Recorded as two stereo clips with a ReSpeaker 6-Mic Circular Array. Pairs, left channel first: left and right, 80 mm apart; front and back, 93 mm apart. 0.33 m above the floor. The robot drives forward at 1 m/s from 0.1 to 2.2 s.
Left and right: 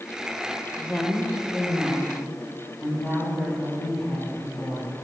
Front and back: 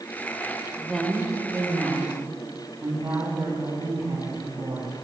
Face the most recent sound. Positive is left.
turn(degrees=160)